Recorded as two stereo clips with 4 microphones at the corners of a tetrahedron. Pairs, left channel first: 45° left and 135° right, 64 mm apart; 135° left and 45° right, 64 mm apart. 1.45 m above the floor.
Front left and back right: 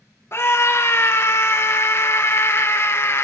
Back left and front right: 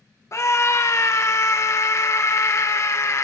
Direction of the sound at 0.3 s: 95° left.